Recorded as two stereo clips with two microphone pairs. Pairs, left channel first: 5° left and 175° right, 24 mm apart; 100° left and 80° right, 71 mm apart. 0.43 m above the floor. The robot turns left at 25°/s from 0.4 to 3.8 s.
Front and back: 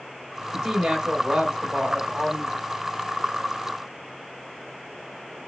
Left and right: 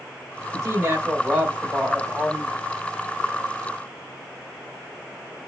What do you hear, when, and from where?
0.5 s a woman speaking: 115° right, 2.5 m; by 2.5 s 165° right, 2.5 m